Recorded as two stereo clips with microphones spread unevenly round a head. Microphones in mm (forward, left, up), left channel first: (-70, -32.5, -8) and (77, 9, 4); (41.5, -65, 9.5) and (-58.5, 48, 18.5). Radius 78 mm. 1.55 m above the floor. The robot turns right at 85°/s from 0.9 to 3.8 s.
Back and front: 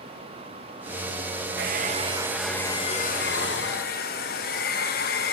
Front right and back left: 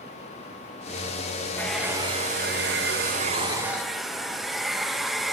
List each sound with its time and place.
1.6 s a hair dryer: 30° left, 0.8 m; by 5.3 s 140° right, 0.8 m